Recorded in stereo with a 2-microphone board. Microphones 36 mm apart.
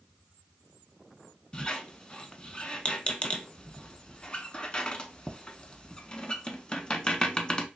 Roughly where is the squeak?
Left.